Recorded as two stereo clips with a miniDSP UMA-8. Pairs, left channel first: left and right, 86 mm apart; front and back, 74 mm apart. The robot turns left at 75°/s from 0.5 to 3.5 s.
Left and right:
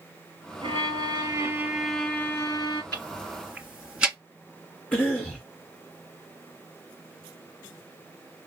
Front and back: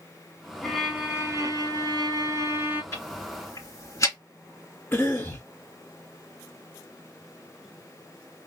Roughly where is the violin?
Right.